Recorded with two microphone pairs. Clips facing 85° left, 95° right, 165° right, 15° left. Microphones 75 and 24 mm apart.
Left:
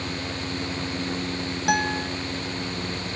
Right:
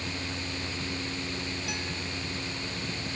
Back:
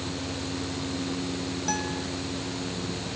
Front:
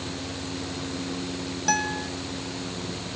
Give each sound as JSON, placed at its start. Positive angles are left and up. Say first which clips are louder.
{"t": 1.7, "sound": "a guitar", "louder": "left 12 dB, front 7 dB", "azimuth_deg": 65}